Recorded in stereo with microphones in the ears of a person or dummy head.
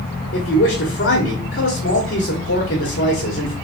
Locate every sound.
0.3 s a man speaking: 65° left (ahead or behind), 1.2 m